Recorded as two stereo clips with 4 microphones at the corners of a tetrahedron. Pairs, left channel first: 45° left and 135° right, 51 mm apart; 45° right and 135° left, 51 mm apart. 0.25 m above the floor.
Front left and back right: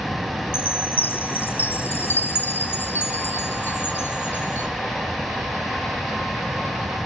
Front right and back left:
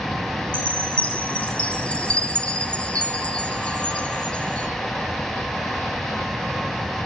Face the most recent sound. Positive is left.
turn(degrees=15)